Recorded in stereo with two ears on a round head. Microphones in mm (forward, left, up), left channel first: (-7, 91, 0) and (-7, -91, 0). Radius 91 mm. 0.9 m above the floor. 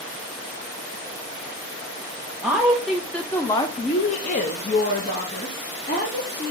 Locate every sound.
2.4 s a woman speaking: 10° right (ahead or behind), 0.9 m; by 6.5 s 35° left (ahead or behind), 1.6 m